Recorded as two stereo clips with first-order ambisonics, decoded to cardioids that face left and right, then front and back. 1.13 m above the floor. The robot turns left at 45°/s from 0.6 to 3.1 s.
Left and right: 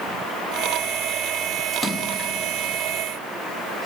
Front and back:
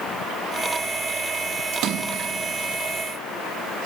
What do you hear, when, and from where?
1.7 s a splash: 170° left, 0.6 m; by 2.3 s 145° left, 0.6 m